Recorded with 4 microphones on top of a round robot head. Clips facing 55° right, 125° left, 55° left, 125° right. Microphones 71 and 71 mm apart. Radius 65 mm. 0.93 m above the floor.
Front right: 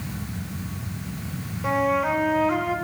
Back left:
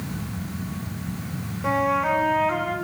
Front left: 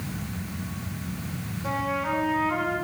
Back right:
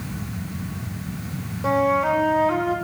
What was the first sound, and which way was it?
A flute, 145° right.